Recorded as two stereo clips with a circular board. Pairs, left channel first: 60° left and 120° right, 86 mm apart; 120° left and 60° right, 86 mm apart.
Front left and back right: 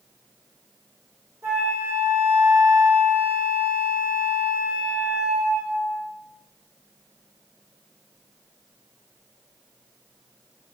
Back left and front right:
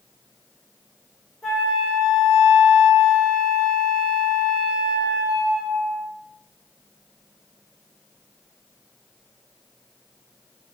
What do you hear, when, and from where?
1.4 s a flute: 145° right, 1.4 m